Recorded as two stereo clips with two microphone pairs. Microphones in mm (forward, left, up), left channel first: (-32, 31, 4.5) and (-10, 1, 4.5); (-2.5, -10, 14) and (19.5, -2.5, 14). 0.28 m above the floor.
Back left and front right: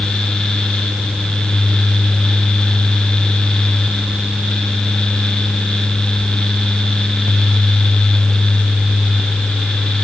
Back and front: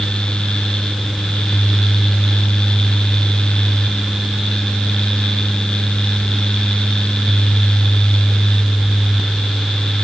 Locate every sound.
Only background noise.